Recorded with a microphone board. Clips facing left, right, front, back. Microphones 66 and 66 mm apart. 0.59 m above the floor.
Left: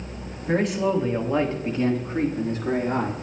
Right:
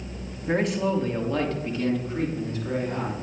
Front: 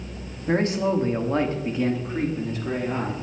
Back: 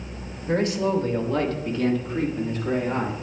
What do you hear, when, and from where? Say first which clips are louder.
0.5 s a man speaking: left 2 dB, even; 10° right, 1.3 m; by 3.1 s 90° left, 1.8 m